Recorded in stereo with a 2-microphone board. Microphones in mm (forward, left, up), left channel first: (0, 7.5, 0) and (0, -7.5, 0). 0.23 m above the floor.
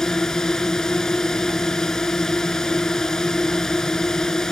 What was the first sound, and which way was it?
A drone, 45° left (ahead or behind).